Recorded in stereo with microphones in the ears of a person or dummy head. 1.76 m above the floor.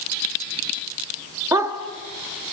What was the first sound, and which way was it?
A dog barking, 15° right (ahead or behind).